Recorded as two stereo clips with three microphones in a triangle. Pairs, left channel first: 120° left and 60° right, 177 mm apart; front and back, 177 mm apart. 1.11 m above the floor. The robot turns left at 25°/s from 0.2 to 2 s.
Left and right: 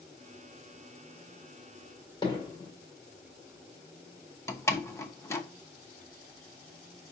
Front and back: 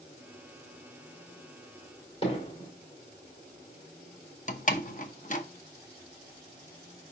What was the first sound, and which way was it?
Hammering, 55° left.